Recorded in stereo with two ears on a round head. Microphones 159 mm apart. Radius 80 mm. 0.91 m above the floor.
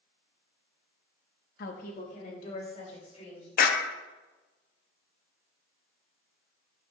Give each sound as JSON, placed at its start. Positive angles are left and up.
{"t": 1.6, "sound": "a woman speaking", "side_deg": 55, "distance_m": 1.1}
{"t": 3.6, "sound": "a clap", "side_deg": 55, "distance_m": 0.9}